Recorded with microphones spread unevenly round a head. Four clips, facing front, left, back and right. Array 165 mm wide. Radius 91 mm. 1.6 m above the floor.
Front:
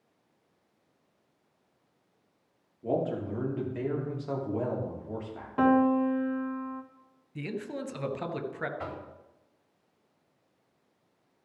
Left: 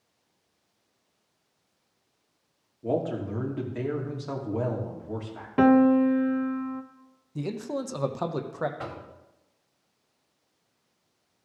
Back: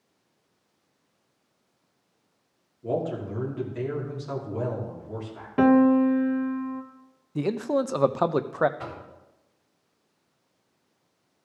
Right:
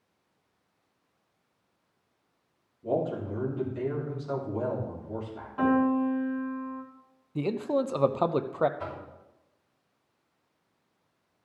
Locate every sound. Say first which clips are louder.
2.8 s a man speaking: left 1 dB, back 1 dB; 50° left, 3 m
5.6 s a piano: left 6 dB, back 5 dB; 110° left, 0.9 m
7.3 s a man speaking: right 4 dB, back 11 dB; 160° right, 0.7 m
8.8 s knocking: even, back 1 dB; 55° left, 3.5 m